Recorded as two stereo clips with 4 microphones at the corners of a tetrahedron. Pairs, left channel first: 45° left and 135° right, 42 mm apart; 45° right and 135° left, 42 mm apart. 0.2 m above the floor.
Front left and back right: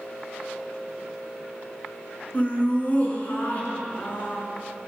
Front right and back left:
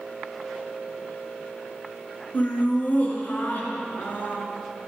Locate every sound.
2.3 s laughter: 5° right, 2.5 m